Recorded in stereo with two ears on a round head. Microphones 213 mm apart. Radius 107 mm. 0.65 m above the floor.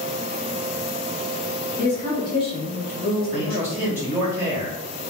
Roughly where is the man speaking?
Centre.